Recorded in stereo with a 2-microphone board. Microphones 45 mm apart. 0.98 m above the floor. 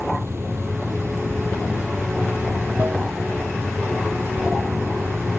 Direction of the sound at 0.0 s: 70° right (ahead or behind).